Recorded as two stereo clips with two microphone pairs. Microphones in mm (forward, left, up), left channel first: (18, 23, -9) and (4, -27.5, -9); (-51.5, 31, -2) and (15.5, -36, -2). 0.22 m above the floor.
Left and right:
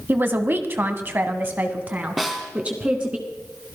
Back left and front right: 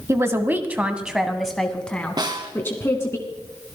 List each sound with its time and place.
0.1 s a man speaking: 85° right, 1.8 m; by 3.2 s 170° right, 2.5 m
2.2 s a snare drum: 20° right, 2.5 m